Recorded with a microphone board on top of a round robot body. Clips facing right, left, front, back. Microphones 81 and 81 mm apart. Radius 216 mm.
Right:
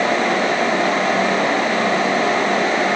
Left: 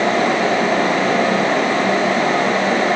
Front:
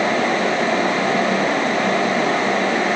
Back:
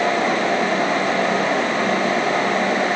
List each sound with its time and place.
Only background noise.